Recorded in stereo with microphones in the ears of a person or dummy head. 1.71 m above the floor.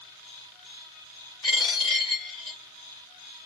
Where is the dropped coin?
15° left (ahead or behind), 1.2 m.